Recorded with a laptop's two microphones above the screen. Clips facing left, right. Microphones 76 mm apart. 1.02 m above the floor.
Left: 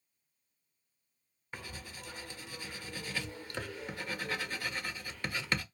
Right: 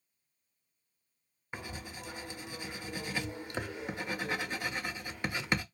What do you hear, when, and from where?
1.5 s writing: 15° right (ahead or behind), 0.5 m